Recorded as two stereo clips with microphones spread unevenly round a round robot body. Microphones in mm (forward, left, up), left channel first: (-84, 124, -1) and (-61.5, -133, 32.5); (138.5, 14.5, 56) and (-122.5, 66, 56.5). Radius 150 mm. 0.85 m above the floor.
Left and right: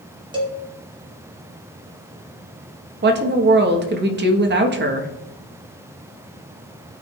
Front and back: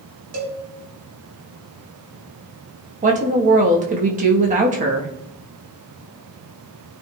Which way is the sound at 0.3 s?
160° right.